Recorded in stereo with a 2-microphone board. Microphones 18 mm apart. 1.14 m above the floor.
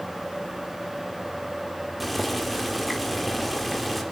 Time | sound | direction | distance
2.0 | boiling | 5° left (ahead or behind) | 4.5 m